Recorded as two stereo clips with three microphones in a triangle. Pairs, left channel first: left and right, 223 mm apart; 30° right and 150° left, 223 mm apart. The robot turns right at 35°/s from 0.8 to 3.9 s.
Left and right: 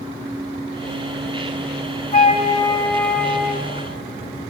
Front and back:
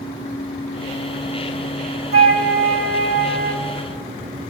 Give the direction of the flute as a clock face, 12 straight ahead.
7 o'clock.